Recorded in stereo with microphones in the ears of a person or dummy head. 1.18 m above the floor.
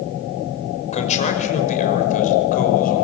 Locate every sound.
0.9 s a man speaking: 35° left (ahead or behind), 5.5 m; by 3.1 s 45° left (ahead or behind), 6 m